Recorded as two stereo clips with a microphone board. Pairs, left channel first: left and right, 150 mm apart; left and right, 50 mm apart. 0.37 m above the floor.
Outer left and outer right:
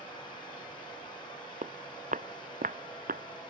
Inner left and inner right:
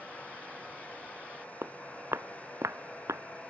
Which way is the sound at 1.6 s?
60° right (ahead or behind).